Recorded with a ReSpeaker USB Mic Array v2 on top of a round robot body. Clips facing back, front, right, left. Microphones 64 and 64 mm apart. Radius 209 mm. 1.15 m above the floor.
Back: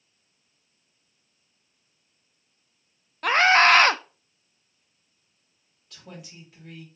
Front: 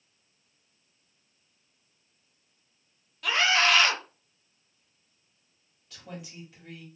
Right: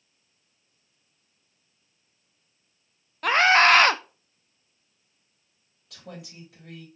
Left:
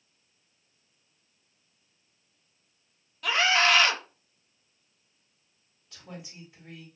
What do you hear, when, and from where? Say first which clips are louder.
3.2 s a scream: back 7 dB, right 6 dB; 135° right, 0.5 m
5.9 s a woman speaking: front 1 dB, right 2 dB; 95° right, 3 m